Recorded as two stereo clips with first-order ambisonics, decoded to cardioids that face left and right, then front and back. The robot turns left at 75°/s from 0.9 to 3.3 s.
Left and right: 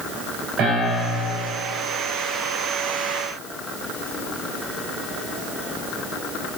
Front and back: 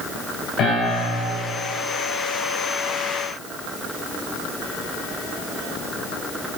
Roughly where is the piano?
Ahead right.